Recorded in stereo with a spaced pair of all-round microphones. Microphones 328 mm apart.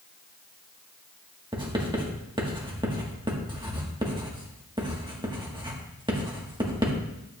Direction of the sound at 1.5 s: 15° right (ahead or behind).